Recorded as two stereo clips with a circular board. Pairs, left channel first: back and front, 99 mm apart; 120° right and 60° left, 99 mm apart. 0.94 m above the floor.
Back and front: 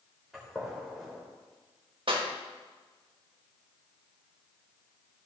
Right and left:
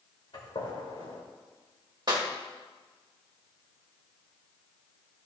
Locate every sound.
0.3 s a gunshot: 90° right, 3 m
2.1 s a clap: 15° left, 1.7 m